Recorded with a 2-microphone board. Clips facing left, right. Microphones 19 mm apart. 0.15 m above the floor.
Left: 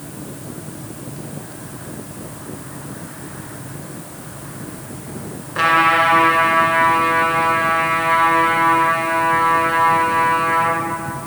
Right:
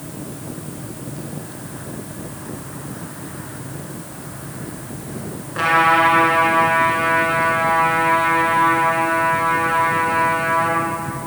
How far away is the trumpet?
About 2 m.